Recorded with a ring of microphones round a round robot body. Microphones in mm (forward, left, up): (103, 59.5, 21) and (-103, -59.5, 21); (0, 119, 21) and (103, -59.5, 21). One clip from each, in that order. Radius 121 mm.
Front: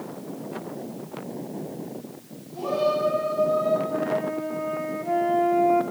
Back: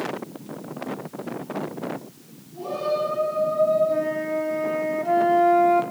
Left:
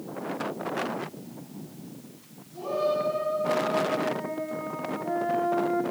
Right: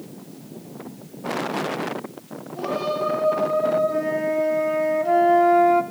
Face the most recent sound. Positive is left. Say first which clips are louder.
# back 2 dB, right 6 dB
turn(degrees=-85)